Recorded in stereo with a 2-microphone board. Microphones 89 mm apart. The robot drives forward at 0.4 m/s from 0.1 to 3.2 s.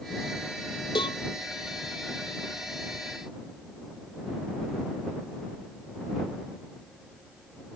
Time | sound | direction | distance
0.9 | a cowbell | 65° left (ahead or behind) | ?